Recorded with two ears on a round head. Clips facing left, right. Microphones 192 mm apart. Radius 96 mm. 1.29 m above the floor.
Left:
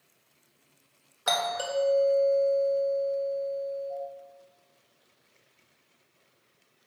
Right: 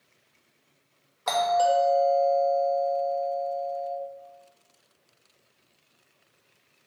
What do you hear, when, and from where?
1.3 s a doorbell: 10° left (ahead or behind), 0.9 m